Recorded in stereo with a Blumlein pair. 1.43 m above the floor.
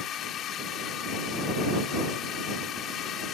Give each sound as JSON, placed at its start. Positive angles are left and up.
{"t": 0.0, "sound": "a drone", "azimuth_deg": 30}